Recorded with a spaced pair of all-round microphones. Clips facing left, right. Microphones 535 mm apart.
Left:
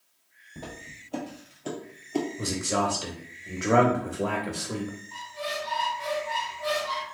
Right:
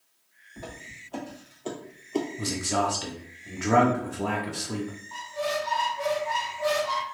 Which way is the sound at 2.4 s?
15° right (ahead or behind).